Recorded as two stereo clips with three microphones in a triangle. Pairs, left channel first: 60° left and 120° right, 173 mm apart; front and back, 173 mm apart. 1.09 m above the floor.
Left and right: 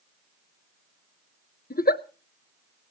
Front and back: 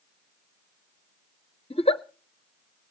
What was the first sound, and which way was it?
A giggle, 55° left.